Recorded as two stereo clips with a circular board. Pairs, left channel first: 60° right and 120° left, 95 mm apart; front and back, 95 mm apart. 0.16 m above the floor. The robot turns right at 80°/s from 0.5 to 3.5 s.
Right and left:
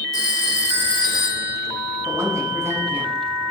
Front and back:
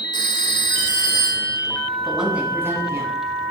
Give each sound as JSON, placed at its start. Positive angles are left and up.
{"t": 0.1, "sound": "a phone ringing", "azimuth_deg": -25, "distance_m": 1.7}
{"t": 2.0, "sound": "a woman speaking", "azimuth_deg": 90, "distance_m": 1.4}